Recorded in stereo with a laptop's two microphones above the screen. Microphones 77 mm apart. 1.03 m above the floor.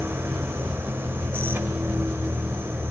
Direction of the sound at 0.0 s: 30° right (ahead or behind).